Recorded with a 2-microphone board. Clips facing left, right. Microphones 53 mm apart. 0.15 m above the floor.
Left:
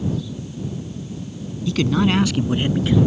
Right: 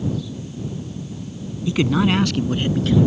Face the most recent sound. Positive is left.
turn(degrees=20)  # may be behind; listen again after turning